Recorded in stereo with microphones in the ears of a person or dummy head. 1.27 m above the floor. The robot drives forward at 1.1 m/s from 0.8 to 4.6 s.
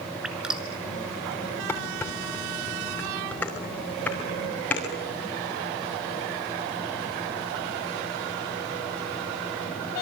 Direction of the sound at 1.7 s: 10° left (ahead or behind).